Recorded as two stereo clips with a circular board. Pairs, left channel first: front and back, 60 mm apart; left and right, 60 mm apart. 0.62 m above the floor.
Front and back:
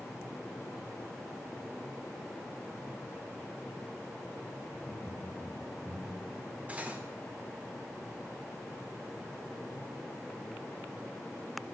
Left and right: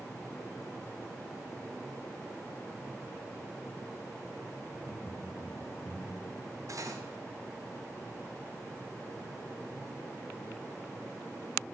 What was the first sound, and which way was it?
Laughter, 150° right.